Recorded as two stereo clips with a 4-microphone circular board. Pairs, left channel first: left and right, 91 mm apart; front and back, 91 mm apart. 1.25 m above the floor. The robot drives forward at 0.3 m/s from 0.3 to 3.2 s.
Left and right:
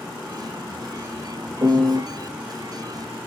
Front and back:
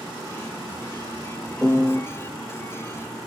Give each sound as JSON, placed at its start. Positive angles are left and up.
{"t": 1.6, "sound": "a piano", "azimuth_deg": -85, "distance_m": 1.4}